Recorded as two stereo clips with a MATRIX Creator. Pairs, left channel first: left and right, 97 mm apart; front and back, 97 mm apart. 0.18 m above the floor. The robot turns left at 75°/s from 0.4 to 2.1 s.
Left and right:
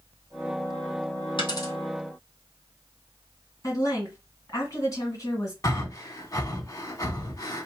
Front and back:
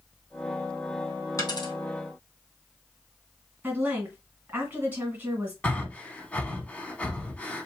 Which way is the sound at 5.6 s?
70° left.